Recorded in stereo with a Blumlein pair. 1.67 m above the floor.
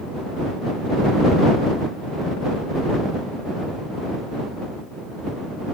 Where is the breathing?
I don't hear breathing.